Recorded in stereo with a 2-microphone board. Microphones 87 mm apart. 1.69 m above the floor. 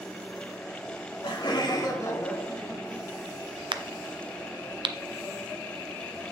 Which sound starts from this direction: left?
Laughter, at 0.9 s.